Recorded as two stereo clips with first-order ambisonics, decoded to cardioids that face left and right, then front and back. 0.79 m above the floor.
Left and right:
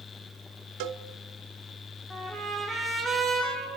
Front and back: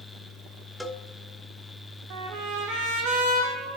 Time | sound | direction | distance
0.8 | a cowbell | 90° right | 1.2 m
2.1 | a trumpet | straight behind | 7.5 m